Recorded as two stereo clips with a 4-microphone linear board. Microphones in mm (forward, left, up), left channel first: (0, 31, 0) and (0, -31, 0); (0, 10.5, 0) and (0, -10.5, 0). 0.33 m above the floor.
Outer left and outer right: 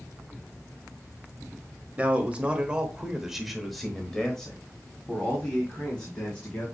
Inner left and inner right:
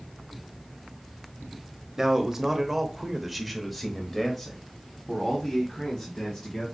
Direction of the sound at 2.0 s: 25° right (ahead or behind).